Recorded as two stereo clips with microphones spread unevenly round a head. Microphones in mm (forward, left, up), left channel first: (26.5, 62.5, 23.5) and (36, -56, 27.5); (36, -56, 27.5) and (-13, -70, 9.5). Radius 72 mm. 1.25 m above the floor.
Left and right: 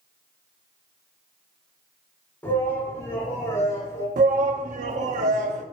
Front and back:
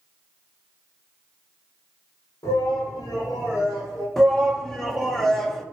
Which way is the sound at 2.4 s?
20° left.